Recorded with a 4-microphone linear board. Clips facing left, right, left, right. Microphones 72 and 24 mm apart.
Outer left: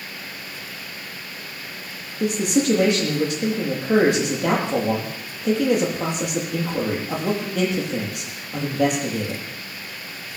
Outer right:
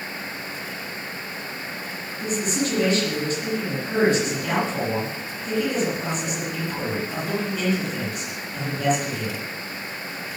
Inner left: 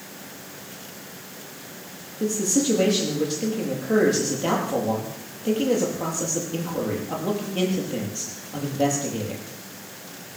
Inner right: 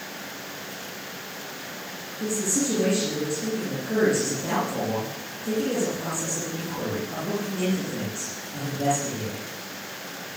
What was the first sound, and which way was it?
A man speaking, 65° left (ahead or behind).